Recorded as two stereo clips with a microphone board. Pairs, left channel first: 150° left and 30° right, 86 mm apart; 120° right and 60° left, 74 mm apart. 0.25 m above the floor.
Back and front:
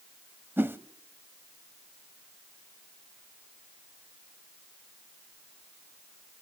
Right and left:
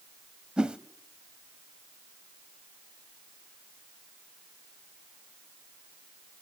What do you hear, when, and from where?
0.6 s a whoosh: 5° right, 0.6 m